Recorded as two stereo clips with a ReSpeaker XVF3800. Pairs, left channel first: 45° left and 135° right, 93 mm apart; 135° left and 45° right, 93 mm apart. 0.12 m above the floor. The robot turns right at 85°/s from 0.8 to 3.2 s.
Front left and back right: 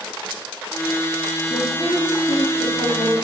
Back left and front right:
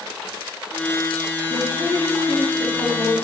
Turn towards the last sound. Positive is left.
turn(degrees=105)